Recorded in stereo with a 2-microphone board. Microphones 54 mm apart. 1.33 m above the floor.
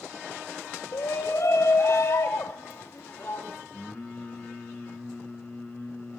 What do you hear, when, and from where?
0.9 s a shout: 85° left, 1.3 m; by 3.6 s 35° left (ahead or behind), 4 m
3.7 s singing: 20° left (ahead or behind), 6 m